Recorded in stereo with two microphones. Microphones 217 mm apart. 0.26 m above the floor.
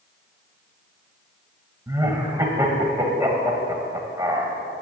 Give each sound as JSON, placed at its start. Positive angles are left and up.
{"t": 1.9, "sound": "laughter", "side_deg": -15, "distance_m": 1.3}